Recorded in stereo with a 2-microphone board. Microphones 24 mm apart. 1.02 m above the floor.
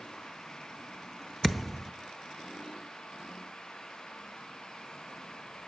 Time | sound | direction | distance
1.4 | a thud | centre (ahead or behind) | 0.6 m